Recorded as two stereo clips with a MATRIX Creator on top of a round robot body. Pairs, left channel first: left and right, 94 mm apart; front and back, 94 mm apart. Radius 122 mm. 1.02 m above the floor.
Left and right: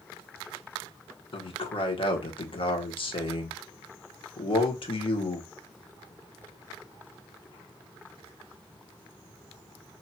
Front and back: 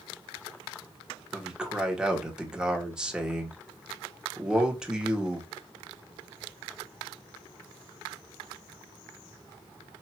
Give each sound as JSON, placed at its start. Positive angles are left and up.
{"t": 1.3, "sound": "a man speaking", "azimuth_deg": 100, "distance_m": 1.3}